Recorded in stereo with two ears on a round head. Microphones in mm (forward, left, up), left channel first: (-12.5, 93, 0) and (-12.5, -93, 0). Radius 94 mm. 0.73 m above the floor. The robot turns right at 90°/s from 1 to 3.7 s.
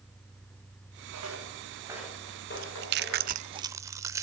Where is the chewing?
40° right (ahead or behind), 0.5 m; by 4.2 s 15° right (ahead or behind), 0.5 m.